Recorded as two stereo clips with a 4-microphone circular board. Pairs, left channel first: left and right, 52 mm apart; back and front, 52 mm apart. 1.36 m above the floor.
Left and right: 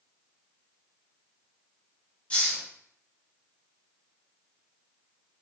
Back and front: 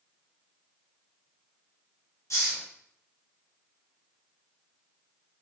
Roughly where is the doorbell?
No doorbell in this recording.